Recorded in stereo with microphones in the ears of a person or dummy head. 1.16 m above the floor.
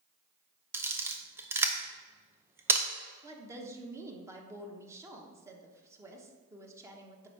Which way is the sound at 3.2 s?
15° right (ahead or behind).